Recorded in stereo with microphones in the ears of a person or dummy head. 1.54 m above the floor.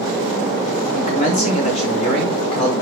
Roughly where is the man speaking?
Left.